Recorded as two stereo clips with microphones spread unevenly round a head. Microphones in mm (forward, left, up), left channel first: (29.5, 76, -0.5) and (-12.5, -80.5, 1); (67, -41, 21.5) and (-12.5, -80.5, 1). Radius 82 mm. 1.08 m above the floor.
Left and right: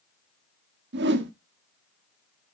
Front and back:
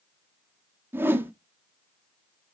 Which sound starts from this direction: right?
A whoosh, at 0.9 s.